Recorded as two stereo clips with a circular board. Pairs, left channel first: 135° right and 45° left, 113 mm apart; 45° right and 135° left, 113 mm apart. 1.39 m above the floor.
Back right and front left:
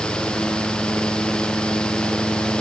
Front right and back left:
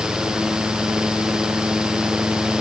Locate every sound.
Only background noise.